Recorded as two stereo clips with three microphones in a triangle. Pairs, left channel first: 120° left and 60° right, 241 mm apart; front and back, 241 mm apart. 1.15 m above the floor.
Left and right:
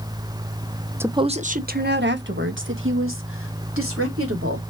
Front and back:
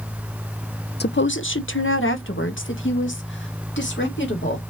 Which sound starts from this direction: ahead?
A woman speaking, at 1.0 s.